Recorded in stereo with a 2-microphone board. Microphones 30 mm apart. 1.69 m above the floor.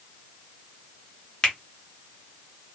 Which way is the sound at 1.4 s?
25° left (ahead or behind).